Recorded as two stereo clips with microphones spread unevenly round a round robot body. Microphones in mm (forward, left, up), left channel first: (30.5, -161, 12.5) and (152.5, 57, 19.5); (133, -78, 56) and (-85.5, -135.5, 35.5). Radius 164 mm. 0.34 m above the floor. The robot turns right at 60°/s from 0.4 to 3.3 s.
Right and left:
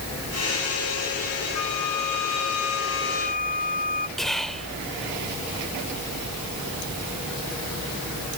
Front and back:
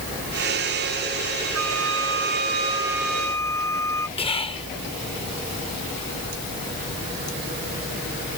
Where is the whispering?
35° right.